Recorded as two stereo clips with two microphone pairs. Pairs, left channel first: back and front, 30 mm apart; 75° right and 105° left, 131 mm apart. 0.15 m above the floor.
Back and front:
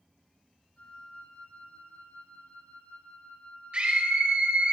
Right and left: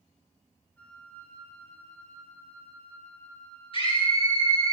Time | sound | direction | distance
0.8 | a flute | 155° right | 5.5 m
3.7 | a scream | 40° right | 2.5 m